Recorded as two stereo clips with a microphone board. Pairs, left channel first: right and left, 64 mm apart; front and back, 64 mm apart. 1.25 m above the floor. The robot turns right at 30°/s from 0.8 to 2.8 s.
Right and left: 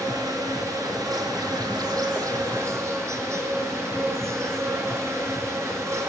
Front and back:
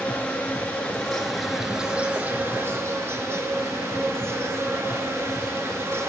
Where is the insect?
70° left, 5 m; by 6.1 s 130° left, 5 m.